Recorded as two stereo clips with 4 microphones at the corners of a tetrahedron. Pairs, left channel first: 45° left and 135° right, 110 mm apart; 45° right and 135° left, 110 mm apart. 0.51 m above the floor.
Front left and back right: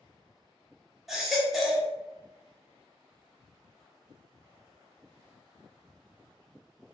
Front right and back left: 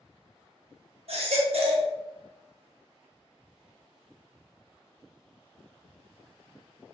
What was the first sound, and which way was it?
A baby crying, 135° left.